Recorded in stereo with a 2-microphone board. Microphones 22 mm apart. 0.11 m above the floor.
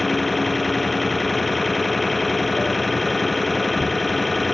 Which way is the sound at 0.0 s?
5° left (ahead or behind).